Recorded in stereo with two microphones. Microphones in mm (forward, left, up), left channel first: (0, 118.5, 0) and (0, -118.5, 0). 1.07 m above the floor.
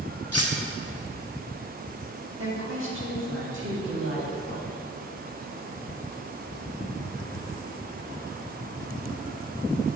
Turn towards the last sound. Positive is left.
turn(degrees=-50)  # may be behind; listen again after turning